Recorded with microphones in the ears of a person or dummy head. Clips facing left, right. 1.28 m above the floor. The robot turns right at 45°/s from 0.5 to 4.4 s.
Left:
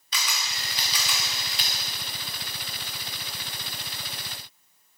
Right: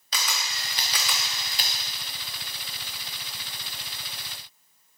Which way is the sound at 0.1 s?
30° right (ahead or behind).